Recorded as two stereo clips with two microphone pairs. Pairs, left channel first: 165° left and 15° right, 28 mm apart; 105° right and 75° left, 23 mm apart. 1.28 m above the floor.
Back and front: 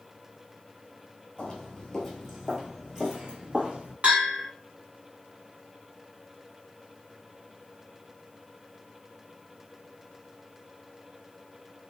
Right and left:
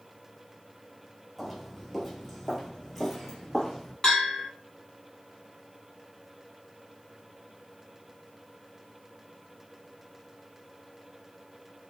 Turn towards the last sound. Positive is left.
turn(degrees=-50)